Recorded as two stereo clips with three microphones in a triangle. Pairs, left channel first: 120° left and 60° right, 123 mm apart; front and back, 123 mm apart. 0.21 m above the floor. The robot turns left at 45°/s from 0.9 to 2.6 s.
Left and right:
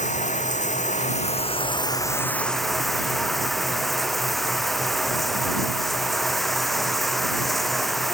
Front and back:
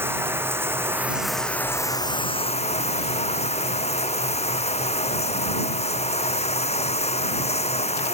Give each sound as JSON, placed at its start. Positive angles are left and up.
{"t": 0.0, "sound": "running water", "azimuth_deg": 105}